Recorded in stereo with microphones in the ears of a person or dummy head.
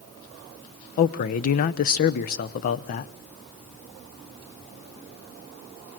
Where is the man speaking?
45° left (ahead or behind), 0.7 m.